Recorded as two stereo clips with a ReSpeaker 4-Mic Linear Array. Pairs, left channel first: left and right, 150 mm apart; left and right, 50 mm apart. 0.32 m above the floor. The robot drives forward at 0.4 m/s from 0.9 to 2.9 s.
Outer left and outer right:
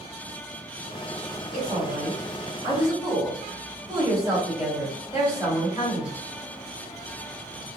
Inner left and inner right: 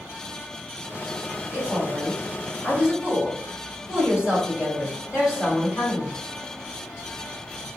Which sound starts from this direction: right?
A woman speaking, at 1.5 s.